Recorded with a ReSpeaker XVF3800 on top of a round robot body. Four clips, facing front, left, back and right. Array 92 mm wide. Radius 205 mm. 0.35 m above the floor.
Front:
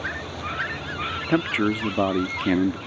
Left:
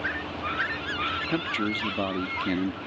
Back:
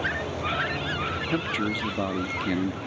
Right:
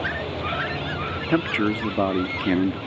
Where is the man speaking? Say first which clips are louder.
Right 6 dB, front 8 dB; 45° right.